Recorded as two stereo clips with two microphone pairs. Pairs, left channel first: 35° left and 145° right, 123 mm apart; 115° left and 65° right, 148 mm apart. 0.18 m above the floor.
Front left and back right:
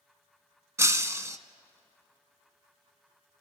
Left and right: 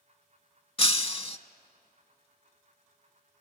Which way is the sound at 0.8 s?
150° left.